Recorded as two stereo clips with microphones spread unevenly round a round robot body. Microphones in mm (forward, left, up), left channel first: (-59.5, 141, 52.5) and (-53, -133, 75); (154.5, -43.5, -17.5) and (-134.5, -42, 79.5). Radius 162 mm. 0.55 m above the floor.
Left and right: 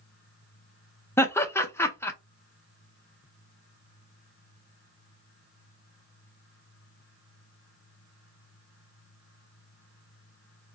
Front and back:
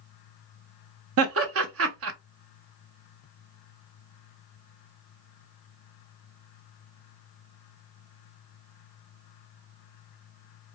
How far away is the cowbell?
I don't hear a cowbell.